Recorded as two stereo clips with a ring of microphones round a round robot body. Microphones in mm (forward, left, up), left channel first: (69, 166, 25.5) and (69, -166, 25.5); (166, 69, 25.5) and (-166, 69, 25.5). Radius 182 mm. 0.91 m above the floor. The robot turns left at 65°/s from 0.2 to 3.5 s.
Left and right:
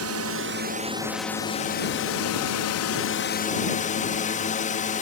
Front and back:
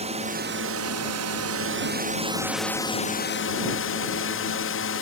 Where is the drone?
115° right; by 5.0 s 30° left.